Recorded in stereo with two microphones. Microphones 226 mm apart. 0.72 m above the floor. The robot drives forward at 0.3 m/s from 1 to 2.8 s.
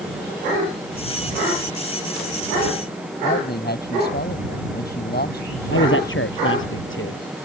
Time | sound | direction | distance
3.2 | a man speaking | 45° left (ahead or behind) | ?
5.7 | a man speaking | 60° left (ahead or behind) | ?